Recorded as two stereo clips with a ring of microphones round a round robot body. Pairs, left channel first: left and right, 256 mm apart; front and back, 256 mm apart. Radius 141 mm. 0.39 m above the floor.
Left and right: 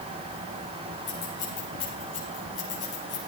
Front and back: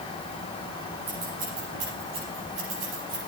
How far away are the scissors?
About 6 m.